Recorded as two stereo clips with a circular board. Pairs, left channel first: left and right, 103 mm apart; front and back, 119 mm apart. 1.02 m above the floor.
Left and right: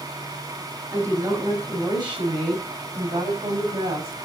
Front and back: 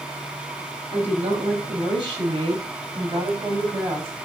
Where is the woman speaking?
145° right, 6 m; by 4.1 s 110° right, 6.5 m.